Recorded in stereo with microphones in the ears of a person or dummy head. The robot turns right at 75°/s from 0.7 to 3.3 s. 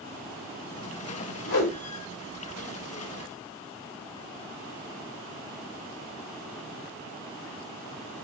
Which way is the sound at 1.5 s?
70° left (ahead or behind).